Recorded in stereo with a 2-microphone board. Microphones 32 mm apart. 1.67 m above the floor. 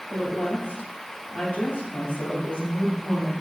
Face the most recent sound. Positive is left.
turn(degrees=70)  # may be behind; listen again after turning